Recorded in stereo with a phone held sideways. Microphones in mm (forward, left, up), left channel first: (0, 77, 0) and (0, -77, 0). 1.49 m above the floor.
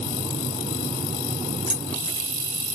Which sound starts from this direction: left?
Keys jangling, at 1.7 s.